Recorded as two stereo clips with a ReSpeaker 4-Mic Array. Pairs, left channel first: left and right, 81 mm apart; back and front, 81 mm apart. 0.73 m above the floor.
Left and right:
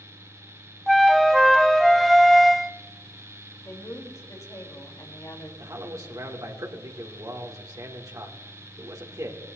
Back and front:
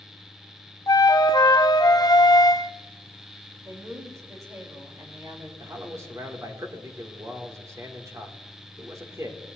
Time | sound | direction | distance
0.9 | a flute | straight behind | 0.6 m
3.6 | a woman speaking | 50° left | 3.5 m
5.6 | a man speaking | 50° right | 2 m